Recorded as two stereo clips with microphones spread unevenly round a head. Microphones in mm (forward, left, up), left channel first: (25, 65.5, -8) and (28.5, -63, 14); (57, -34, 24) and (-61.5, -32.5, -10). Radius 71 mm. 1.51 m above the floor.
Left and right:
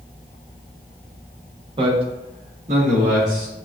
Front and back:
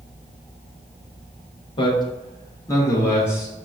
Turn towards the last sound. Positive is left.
turn(degrees=-70)